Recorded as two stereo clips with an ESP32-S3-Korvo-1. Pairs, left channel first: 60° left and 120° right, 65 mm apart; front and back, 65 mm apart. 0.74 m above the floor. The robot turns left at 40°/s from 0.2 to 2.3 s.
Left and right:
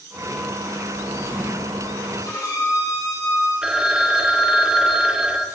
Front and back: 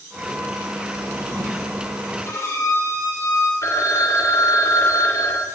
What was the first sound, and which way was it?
A drawer, 155° right.